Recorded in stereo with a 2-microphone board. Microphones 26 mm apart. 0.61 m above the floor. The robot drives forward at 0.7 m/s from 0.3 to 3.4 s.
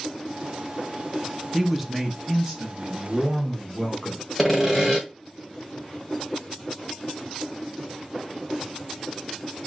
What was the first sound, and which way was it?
A man speaking, 5° right (ahead or behind).